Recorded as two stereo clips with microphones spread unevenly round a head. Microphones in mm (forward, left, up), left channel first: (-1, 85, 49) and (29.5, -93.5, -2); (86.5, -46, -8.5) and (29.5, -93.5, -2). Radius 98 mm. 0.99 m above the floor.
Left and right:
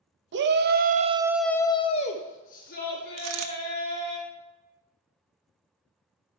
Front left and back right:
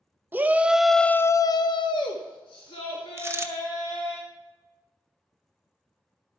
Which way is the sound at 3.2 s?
90° right.